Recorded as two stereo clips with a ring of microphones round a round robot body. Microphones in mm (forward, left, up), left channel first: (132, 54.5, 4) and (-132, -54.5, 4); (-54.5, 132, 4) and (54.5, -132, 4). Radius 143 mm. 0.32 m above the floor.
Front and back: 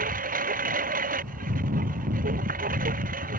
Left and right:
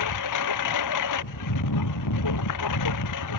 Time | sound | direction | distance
0.0 | a lawn mower | 140° left | ?